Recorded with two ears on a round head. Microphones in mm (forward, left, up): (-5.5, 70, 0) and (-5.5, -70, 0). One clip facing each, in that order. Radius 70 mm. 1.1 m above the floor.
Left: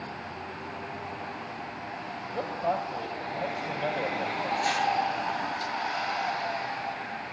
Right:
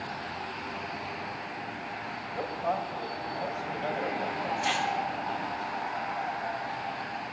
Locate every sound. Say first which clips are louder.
2.2 s a man speaking: left 2 dB; 35° left (ahead or behind), 7 m
4.6 s a whoosh: left 4 dB; 45° left (ahead or behind), 8.5 m